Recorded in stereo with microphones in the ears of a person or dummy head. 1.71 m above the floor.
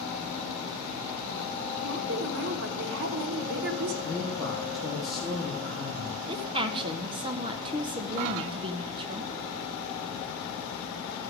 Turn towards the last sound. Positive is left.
turn(degrees=-30)  # may be behind; listen again after turning